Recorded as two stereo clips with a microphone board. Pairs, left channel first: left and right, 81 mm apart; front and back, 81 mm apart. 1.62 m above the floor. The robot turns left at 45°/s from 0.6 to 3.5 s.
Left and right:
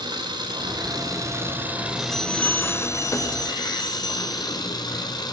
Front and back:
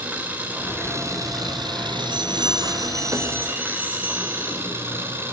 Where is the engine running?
110° right, 4 m; by 5.3 s 120° left, 4 m.